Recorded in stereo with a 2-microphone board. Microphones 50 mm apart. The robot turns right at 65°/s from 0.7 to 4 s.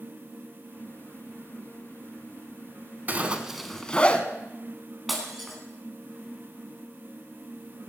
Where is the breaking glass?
5° right (ahead or behind), 3 m.